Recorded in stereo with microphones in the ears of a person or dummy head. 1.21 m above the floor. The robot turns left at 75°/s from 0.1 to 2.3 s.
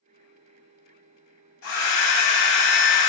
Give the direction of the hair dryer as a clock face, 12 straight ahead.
8 o'clock.